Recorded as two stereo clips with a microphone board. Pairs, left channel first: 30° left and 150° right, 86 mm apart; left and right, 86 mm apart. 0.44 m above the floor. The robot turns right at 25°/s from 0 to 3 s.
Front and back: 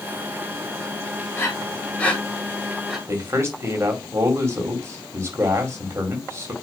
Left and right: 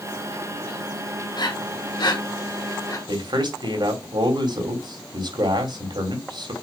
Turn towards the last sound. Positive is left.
turn(degrees=-95)